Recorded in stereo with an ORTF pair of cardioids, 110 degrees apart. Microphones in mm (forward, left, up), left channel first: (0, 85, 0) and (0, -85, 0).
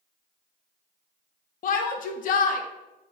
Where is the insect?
I don't hear an insect.